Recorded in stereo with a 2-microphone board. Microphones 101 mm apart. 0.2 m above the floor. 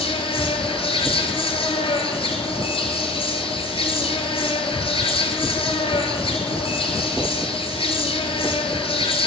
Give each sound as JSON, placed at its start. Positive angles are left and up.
{"t": 0.0, "sound": "an insect", "side_deg": 60, "distance_m": 1.3}